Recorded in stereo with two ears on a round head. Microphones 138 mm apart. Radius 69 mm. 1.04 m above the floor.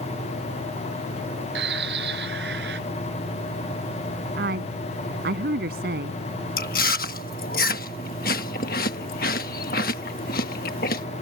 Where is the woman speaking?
70° right (ahead or behind).